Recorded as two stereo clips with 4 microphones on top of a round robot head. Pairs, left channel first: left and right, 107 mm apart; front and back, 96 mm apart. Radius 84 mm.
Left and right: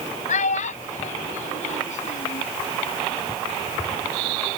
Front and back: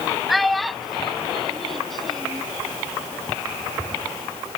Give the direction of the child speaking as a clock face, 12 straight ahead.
9 o'clock.